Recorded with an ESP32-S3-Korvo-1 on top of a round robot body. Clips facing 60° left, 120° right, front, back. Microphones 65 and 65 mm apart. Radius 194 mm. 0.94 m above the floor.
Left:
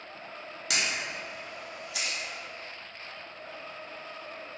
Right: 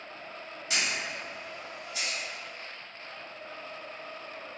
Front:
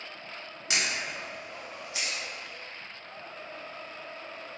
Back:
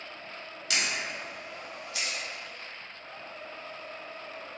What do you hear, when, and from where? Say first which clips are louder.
0.7 s a camera shutter: even, even; 65° left, 1.1 m